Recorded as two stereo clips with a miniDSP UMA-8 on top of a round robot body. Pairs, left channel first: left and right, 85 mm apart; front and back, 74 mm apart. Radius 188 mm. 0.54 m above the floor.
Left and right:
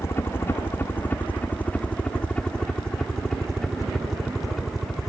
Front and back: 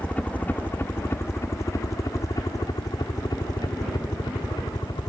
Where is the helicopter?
60° left; by 5.1 s straight ahead.